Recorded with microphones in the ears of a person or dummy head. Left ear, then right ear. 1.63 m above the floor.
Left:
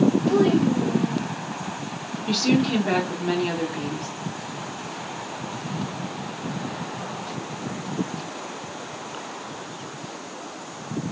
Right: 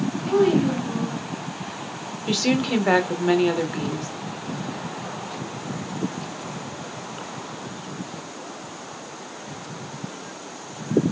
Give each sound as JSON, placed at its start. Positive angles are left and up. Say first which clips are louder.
{"t": 0.3, "sound": "a child speaking", "louder": "right 1 dB", "side_deg": -20, "distance_m": 2.0}
{"t": 2.3, "sound": "a woman speaking", "louder": "even", "side_deg": -35, "distance_m": 0.7}